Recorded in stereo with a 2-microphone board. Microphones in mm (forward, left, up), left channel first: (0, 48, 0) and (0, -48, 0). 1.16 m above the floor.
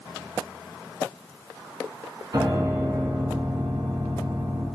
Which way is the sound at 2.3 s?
45° right (ahead or behind).